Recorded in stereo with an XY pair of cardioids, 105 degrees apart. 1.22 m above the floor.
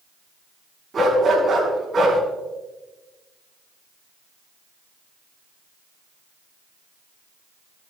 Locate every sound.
0.9 s a dog barking: 45° right, 4.5 m